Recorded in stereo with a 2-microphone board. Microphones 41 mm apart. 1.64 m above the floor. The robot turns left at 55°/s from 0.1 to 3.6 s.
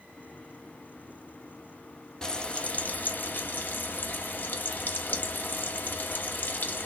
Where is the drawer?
No drawer in this recording.